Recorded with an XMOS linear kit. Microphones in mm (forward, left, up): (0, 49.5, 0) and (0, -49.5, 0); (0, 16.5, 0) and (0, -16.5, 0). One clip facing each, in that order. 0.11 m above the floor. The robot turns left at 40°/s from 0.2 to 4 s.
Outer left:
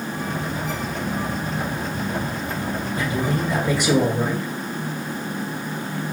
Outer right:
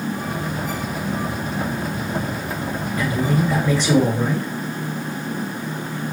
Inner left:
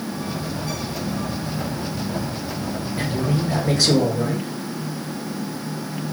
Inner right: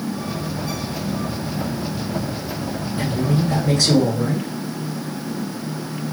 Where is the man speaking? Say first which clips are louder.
Outer right 4 dB, inner right 3 dB; 50° left, 1.9 m; by 4.5 s 10° left, 1.9 m.